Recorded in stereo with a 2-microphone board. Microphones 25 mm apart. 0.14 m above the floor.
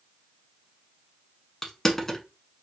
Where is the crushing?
15° left (ahead or behind), 1.0 m.